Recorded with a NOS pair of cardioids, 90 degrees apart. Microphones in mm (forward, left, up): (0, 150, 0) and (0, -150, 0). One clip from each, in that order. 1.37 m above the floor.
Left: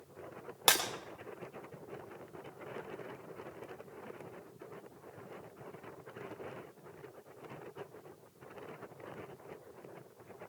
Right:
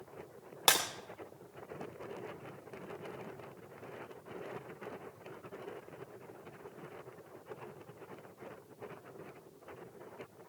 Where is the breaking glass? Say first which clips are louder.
Even; straight ahead, 2.5 m.